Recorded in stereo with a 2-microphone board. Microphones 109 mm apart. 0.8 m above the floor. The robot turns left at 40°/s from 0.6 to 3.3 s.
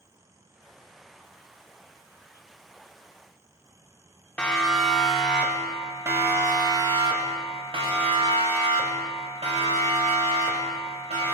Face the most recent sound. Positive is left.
turn(degrees=-80)